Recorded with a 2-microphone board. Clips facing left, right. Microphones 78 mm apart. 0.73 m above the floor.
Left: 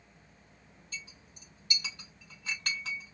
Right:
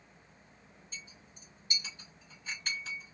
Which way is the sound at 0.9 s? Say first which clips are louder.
Left 4 dB; 75° left (ahead or behind).